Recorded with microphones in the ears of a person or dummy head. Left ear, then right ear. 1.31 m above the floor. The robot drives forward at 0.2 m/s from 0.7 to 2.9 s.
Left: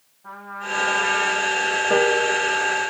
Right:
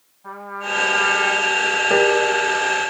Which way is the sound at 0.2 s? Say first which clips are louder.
Right 3 dB; 15° right (ahead or behind).